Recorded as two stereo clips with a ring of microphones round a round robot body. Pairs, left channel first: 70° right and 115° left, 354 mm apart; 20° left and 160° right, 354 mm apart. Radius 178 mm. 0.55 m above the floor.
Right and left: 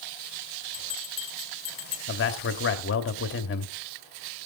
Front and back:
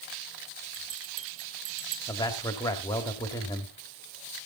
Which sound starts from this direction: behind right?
A bell, at 0.7 s.